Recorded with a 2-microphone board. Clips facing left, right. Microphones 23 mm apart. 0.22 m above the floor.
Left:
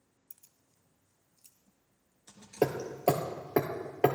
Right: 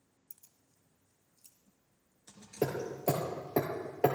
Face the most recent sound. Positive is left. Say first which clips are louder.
# left 4 dB
turn(degrees=60)  # may be behind; listen again after turning